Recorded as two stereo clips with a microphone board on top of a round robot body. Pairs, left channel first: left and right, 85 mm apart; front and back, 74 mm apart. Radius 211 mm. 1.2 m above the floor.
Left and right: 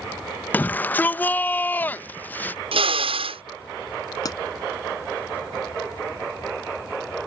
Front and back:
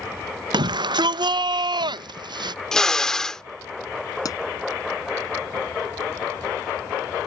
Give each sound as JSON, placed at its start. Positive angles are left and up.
{"t": 0.5, "sound": "a shout", "azimuth_deg": 160}
{"t": 2.7, "sound": "a drill", "azimuth_deg": -85}
{"t": 4.2, "sound": "a pop", "azimuth_deg": 40}